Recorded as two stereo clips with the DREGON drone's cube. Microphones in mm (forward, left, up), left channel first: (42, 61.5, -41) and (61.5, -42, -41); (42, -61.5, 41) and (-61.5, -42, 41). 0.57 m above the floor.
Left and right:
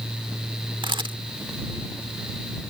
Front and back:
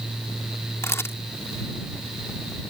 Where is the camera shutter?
65° right.